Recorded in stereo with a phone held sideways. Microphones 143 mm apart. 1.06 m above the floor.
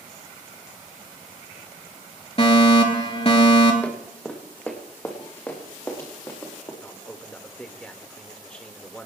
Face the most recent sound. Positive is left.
turn(degrees=10)  # may be behind; listen again after turning